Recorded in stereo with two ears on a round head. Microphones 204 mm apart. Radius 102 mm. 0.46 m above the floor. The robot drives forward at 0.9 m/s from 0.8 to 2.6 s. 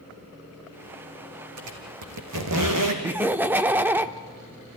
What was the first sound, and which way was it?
A squeak, 75° right (ahead or behind).